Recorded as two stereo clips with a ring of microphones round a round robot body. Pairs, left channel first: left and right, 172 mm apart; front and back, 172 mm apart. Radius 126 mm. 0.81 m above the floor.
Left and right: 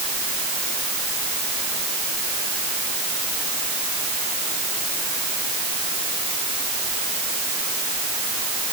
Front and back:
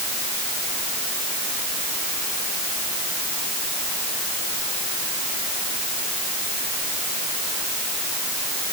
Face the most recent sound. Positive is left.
No sound to turn to.